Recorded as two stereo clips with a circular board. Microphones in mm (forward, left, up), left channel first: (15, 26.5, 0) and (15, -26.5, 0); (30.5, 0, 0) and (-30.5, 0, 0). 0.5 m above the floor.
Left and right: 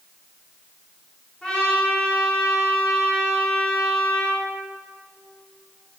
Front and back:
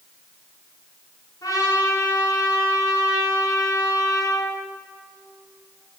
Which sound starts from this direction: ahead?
A trumpet, at 1.4 s.